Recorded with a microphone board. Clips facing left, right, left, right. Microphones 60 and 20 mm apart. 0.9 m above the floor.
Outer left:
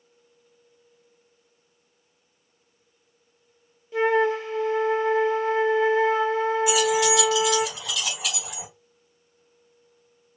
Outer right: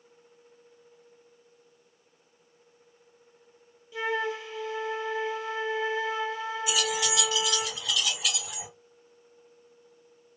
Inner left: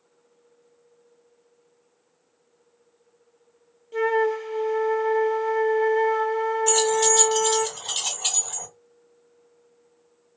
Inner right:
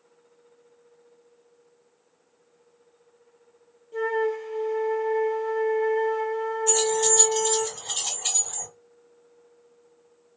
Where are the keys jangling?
65° left (ahead or behind), 1.6 m.